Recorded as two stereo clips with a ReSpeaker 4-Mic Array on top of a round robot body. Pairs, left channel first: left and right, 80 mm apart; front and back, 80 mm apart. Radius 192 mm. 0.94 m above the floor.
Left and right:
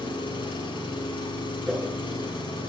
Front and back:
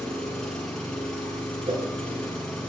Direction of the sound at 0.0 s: 85° left.